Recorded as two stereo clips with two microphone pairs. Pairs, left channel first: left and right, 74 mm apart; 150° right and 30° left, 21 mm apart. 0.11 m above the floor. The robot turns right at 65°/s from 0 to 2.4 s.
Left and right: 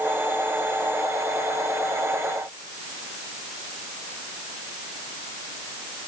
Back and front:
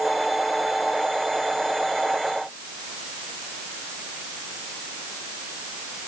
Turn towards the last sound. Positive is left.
No sound to turn to.